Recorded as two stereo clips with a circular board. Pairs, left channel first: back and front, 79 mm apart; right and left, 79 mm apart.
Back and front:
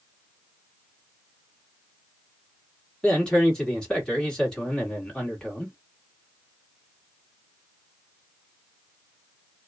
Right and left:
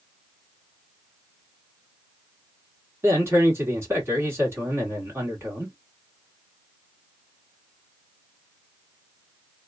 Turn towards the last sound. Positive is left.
turn(degrees=105)